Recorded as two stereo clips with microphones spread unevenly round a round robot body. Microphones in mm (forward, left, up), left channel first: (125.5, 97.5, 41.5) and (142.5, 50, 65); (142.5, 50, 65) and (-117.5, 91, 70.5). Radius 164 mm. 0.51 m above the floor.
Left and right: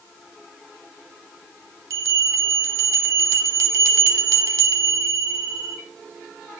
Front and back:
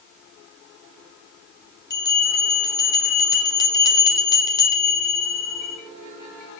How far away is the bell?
About 0.6 m.